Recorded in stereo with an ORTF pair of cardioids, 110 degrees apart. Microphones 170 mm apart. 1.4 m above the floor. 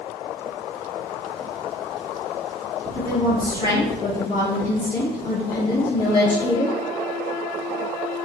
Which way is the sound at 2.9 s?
35° left.